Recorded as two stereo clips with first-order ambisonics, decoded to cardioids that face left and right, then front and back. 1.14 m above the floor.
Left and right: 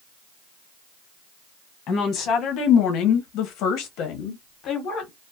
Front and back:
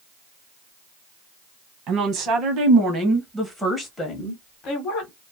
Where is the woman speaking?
145° left, 1.3 m; by 5.1 s 40° left, 1.1 m.